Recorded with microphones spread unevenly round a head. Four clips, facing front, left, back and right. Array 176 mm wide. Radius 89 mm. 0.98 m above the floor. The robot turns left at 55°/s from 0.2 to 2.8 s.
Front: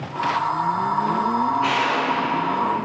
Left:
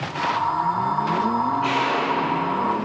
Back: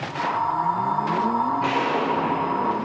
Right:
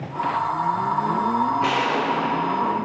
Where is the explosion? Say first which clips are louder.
Even, front 1 dB; 120° right, 0.6 m; by 2.7 s straight behind, 0.6 m.